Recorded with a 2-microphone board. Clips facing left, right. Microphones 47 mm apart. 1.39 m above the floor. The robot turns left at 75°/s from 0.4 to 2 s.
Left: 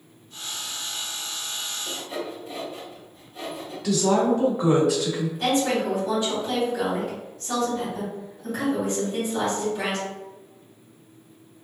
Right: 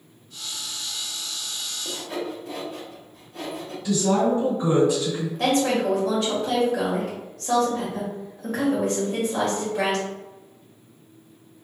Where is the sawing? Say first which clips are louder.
Right 3 dB; 70° right (ahead or behind), 1.9 m; by 3.7 s 80° right, 1.9 m.